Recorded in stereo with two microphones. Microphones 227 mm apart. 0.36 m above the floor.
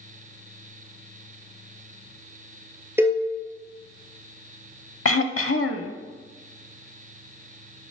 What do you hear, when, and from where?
3.0 s a cowbell: 10° right (ahead or behind), 1.5 m
5.0 s throat clearing: 75° left (ahead or behind), 0.5 m